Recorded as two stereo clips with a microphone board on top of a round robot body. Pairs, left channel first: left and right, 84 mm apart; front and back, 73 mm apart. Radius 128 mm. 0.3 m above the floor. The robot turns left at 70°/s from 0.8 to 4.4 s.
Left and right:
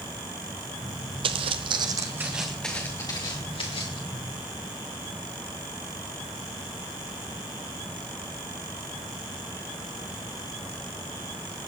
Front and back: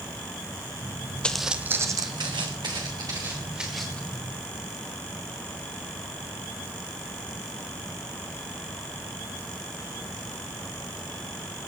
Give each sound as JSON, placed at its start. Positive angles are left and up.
{"t": 1.2, "sound": "footsteps", "azimuth_deg": -75, "distance_m": 0.7}